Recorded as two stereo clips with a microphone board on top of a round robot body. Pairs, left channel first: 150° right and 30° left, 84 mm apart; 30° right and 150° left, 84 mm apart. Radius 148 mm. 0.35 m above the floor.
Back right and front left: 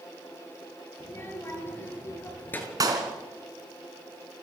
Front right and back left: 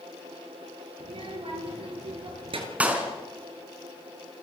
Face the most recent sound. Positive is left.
turn(degrees=75)